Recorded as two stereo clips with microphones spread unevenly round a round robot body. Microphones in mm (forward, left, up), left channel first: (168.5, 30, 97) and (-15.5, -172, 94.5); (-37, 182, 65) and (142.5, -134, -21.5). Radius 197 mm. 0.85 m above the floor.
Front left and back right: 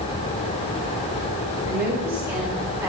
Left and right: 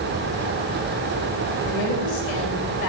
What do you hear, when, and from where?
1.6 s a woman speaking: 145° left, 4.5 m